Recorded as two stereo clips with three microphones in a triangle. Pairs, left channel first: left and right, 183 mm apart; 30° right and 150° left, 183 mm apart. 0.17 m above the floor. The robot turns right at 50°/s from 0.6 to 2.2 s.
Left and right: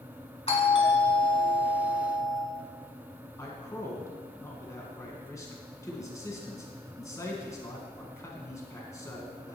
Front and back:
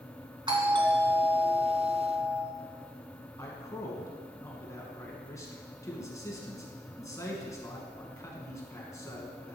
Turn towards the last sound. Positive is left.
turn(degrees=30)